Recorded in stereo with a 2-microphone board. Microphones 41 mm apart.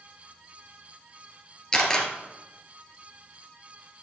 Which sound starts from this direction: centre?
A camera shutter, at 1.7 s.